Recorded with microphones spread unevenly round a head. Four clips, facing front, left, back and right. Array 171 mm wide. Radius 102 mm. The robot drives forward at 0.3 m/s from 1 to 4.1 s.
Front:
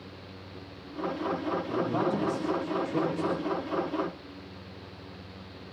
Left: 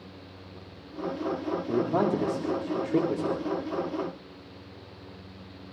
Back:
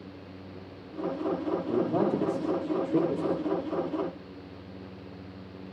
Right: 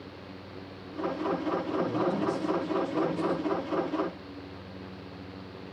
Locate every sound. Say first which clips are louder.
1.7 s a man speaking: left 6 dB, back 3 dB; 115° left, 3 m; by 3.5 s 125° left, 3 m